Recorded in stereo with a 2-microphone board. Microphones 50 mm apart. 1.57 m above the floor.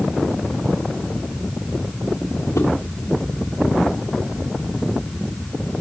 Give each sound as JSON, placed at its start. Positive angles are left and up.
{"t": 2.5, "sound": "a whoosh", "side_deg": 80, "distance_m": 3.0}